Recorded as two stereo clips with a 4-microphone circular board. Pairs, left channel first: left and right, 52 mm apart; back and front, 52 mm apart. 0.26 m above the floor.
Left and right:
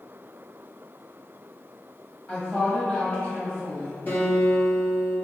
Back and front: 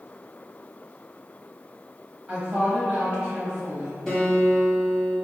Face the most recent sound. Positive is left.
turn(degrees=95)